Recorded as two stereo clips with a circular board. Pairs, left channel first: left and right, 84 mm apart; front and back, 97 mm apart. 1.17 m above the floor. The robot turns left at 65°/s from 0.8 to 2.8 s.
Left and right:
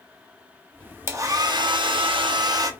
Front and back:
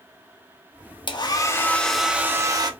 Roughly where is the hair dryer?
Ahead right.